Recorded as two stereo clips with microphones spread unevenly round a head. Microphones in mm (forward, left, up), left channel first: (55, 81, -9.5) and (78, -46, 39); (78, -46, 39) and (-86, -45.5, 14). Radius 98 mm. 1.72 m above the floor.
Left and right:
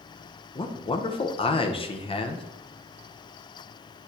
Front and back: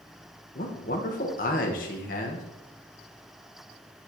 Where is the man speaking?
45° left, 1.1 m.